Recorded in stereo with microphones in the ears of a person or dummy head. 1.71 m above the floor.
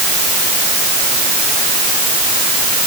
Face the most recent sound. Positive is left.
No sound to turn to.